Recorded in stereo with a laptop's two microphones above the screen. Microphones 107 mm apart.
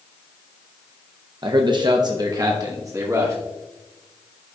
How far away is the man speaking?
About 0.6 m.